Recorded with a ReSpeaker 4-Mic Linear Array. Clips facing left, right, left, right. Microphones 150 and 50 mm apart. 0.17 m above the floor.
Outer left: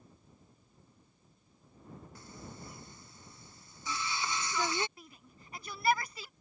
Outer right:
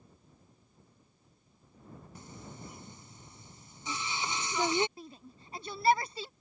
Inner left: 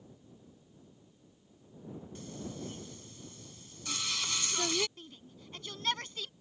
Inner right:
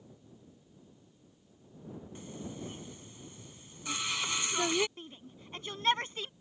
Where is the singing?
20° right (ahead or behind).